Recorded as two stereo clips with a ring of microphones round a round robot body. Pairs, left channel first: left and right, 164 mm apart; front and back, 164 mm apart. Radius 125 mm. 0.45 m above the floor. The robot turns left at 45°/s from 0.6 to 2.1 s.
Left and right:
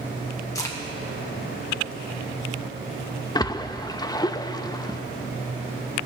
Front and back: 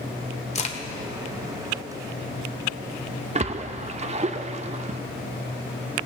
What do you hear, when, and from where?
0.6 s a crack: 25° left, 1.3 m; by 0.8 s 15° left, 1.3 m
3.4 s a splash: 150° left, 0.6 m